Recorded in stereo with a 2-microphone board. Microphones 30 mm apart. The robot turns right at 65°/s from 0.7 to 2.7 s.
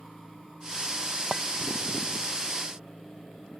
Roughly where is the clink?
Centre.